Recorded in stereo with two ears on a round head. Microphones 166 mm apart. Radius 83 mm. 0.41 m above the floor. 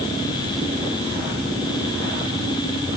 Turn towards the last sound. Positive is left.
No sound to turn to.